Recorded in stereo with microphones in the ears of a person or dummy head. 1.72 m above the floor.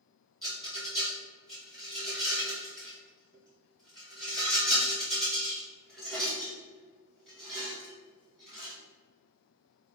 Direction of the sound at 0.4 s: 5° left (ahead or behind).